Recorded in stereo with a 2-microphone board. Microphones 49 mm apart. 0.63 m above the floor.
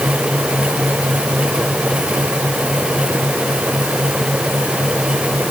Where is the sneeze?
No sneeze in this recording.